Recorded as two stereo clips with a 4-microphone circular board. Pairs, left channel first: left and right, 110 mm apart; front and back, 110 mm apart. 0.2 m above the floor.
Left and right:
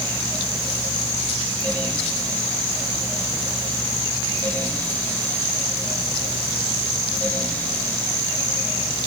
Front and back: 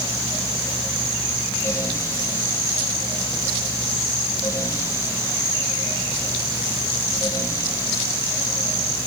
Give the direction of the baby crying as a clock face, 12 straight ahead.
I don't hear a baby crying.